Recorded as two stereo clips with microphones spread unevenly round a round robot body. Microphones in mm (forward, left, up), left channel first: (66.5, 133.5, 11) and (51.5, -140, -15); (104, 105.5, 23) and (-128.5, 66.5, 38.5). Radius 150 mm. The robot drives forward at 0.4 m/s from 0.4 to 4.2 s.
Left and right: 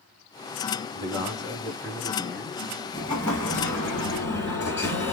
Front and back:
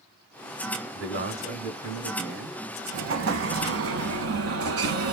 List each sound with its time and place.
0.9 s a man speaking: 170° left, 1.5 m; by 2.6 s 175° left, 2 m
2.9 s an explosion: 165° left, 0.8 m; by 5.1 s 170° left, 1.3 m